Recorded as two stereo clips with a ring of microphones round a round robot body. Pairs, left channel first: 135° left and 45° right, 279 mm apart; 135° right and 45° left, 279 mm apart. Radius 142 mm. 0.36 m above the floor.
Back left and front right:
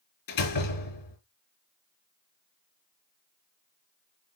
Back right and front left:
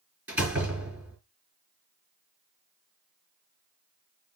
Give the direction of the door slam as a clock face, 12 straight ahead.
8 o'clock.